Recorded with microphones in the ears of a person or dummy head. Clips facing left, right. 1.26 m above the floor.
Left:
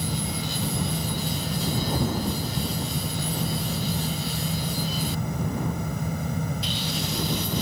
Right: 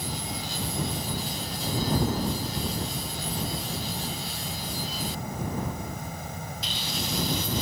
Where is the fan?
65° left (ahead or behind).